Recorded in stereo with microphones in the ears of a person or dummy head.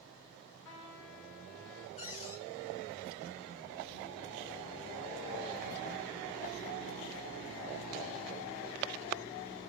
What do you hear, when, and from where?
0.7 s a trumpet: 75° left (ahead or behind), 2.5 m
2.0 s a cupboard door: 40° left (ahead or behind), 1.8 m